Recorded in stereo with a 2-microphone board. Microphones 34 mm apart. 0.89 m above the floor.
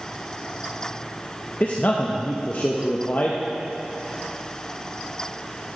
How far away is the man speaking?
About 0.5 m.